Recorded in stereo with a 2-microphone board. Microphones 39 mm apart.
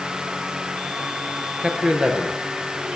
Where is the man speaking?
25° right (ahead or behind), 6.5 m.